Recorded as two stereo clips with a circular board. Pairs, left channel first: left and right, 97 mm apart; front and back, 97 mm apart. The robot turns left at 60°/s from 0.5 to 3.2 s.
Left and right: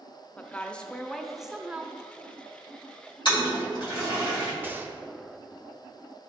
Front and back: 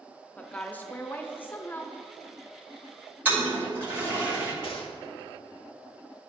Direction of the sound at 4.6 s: 20° right.